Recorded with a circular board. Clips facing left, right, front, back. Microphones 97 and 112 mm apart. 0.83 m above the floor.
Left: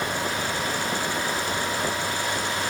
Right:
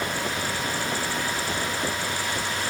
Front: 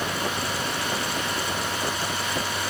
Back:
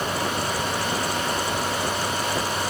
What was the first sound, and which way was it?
Only background noise.